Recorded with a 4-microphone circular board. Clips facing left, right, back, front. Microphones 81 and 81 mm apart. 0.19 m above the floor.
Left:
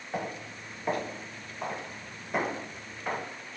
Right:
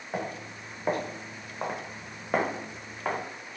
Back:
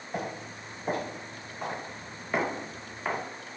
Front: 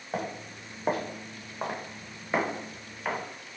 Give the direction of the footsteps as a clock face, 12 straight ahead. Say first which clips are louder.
Right 1 dB, front 1 dB; 12 o'clock.